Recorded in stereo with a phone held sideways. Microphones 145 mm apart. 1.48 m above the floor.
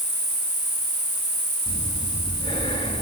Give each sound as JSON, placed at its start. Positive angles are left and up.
{"t": 0.0, "sound": "an insect", "side_deg": -30, "distance_m": 4.5}
{"t": 1.7, "sound": "breathing", "side_deg": 35, "distance_m": 3.5}